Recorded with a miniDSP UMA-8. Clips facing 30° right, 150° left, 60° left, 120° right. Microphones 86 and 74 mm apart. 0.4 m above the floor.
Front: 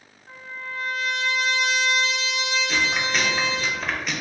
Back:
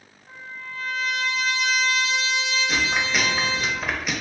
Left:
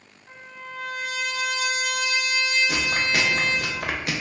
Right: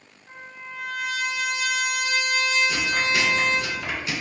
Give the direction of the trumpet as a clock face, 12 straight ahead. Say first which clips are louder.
Front 2 dB, even; 12 o'clock.